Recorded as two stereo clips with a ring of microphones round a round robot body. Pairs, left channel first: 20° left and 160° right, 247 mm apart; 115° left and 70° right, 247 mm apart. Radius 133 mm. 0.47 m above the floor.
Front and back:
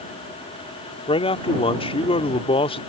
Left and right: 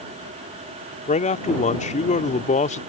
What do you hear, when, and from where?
1.1 s a man speaking: 75° left